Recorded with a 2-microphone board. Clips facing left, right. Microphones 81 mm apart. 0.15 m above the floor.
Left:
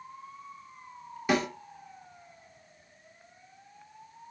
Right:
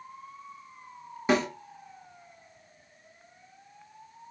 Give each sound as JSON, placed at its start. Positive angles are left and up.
{"t": 1.3, "sound": "a snare drum", "side_deg": -30, "distance_m": 1.3}